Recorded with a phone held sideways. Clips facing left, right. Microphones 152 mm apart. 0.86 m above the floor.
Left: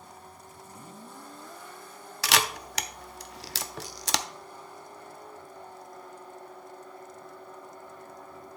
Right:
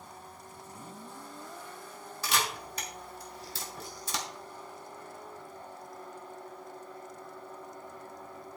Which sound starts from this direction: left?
A camera shutter, at 2.2 s.